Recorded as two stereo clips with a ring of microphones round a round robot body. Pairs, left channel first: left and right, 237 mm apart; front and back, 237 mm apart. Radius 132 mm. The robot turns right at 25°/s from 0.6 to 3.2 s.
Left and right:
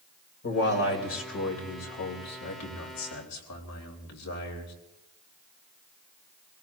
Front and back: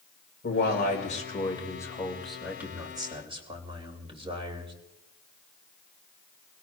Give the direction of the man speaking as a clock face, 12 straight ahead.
10 o'clock.